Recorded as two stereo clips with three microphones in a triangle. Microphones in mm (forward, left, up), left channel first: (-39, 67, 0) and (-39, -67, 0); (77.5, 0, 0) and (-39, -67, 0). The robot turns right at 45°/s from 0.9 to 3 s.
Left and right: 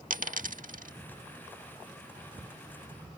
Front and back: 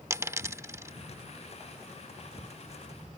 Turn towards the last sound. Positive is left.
turn(degrees=15)